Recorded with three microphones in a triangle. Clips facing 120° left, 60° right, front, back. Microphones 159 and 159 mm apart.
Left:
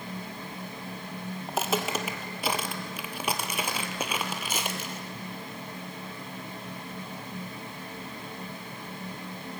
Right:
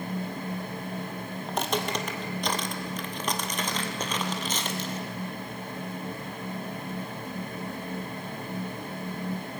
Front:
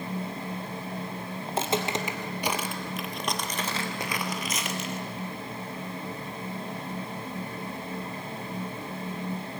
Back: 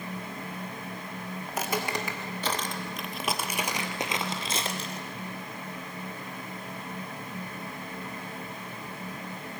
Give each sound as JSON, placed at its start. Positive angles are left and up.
{"t": 1.5, "sound": "footsteps", "azimuth_deg": 35, "distance_m": 1.7}